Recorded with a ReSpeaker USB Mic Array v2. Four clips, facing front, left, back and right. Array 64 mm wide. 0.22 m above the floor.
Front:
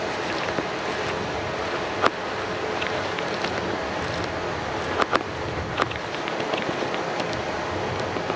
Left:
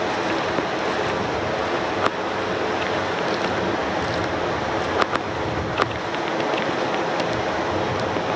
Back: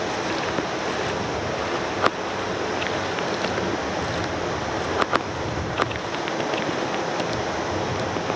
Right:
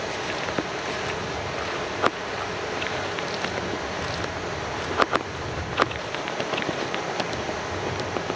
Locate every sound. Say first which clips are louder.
0.0 s running water: left 7 dB, back 1 dB; 110° left, 5.5 m